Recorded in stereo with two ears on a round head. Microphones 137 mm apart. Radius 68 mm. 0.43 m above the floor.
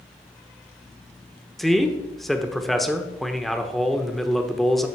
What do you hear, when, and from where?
1.6 s a man speaking: centre (ahead or behind), 0.9 m